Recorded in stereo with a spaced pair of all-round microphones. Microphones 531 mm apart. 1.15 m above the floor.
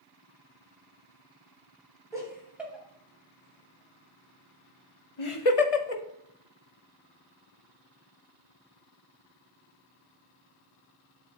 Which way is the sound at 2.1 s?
5° right (ahead or behind).